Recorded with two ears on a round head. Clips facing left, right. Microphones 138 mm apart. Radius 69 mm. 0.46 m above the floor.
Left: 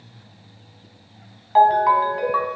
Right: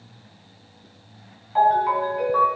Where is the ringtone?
80° left, 1.6 m.